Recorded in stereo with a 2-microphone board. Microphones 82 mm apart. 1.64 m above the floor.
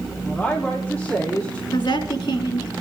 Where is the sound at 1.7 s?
85° left, 3.5 m.